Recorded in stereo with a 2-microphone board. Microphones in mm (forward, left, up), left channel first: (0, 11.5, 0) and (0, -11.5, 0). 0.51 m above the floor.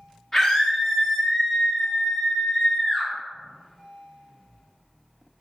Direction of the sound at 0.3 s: 25° left (ahead or behind).